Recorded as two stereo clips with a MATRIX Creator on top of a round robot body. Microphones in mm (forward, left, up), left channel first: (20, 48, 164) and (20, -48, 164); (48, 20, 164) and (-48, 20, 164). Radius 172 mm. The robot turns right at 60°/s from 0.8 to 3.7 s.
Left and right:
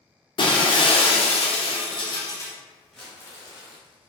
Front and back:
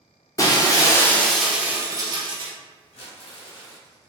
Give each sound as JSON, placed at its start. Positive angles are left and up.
{"t": 0.4, "sound": "breaking glass", "azimuth_deg": 55, "distance_m": 0.8}
{"t": 2.9, "sound": "crumpling", "azimuth_deg": 5, "distance_m": 0.9}